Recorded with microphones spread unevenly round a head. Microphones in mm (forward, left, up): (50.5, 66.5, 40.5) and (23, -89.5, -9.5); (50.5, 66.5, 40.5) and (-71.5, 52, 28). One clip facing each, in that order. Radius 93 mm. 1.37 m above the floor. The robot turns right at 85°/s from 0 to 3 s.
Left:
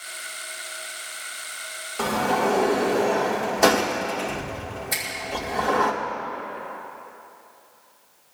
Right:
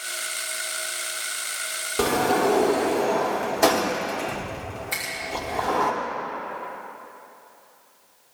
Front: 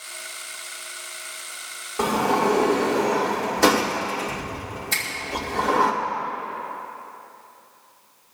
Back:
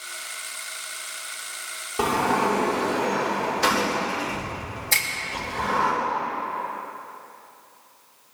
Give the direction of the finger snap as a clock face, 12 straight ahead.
7 o'clock.